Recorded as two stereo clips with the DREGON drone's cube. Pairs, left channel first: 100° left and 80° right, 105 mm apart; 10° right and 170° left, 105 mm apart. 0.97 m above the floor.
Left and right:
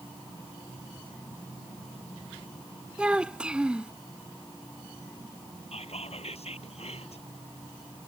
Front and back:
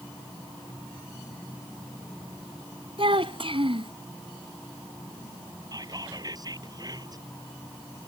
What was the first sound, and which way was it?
A child speaking, 160° right.